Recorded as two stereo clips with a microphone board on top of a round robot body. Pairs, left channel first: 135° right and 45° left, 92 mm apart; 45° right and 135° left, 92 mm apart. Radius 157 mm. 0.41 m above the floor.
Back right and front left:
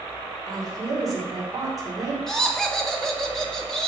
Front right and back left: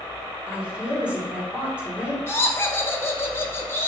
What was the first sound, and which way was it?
A woman speaking, 65° left.